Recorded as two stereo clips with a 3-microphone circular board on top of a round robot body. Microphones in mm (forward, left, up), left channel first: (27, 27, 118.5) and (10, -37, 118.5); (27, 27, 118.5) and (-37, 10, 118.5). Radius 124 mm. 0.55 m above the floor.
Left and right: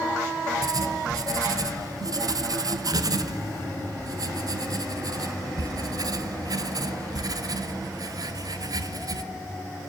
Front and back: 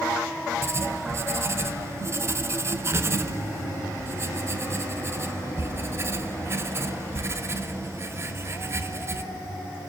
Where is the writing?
115° right, 1.4 m.